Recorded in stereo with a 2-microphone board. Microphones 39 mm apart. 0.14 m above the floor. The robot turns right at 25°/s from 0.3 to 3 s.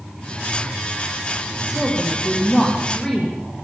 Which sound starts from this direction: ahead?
A woman speaking, at 1.7 s.